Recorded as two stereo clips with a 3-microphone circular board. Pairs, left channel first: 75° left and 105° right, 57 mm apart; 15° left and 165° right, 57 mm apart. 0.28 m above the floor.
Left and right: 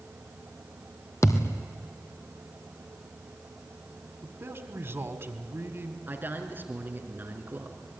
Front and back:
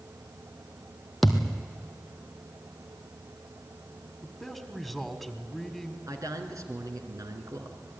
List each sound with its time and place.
1.2 s a thud: 105° left, 1.7 m
4.2 s a man speaking: 75° right, 1.9 m
6.1 s a man speaking: 160° right, 3.5 m